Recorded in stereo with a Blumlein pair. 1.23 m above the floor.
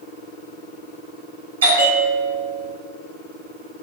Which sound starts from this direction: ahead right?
A bell, at 1.6 s.